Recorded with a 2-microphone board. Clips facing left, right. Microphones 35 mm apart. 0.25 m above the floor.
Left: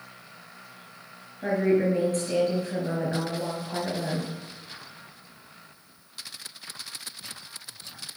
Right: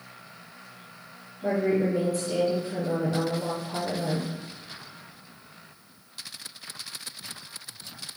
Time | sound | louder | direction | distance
1.4 | a woman speaking | left 2 dB | 55° left (ahead or behind) | 5 m